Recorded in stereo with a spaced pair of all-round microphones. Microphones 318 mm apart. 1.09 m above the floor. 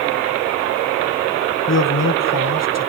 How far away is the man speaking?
About 1.1 m.